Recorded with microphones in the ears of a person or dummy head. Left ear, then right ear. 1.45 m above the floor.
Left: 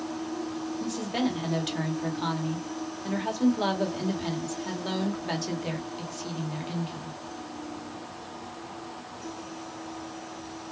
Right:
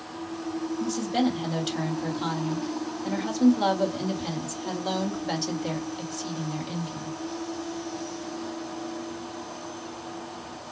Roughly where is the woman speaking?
Centre.